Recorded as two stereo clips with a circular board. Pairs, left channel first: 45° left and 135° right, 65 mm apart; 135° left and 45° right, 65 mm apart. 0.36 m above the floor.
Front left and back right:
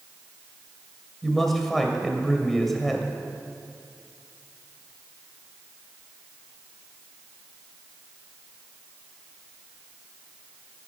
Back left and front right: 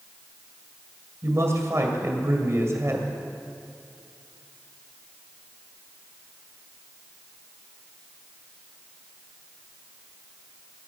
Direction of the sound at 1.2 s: 40° right.